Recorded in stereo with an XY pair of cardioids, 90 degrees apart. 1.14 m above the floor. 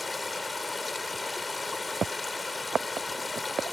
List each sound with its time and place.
0.0 s running water: 25° left